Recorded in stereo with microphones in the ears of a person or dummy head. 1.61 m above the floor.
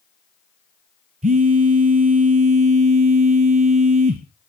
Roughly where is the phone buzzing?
Right.